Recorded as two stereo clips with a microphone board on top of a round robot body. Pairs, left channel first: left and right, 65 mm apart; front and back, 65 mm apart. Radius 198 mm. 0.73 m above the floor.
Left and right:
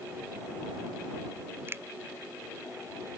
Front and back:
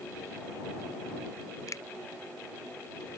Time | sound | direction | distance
1.7 | a finger snap | 35° right | ?